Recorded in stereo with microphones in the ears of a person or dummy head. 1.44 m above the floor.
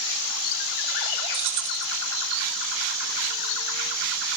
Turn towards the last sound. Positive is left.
turn(degrees=-60)  # may be behind; listen again after turning